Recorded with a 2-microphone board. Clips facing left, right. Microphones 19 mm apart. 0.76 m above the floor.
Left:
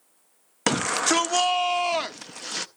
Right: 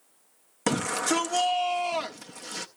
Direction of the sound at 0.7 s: 35° left (ahead or behind).